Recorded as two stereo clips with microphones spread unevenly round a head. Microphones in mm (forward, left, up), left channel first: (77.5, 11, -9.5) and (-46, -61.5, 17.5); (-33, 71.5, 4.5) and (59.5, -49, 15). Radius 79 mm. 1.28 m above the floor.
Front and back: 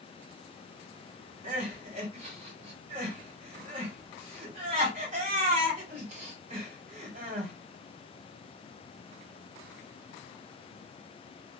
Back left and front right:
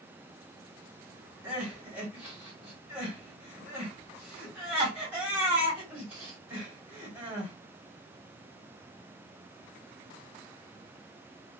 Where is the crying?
130° right, 1.7 m.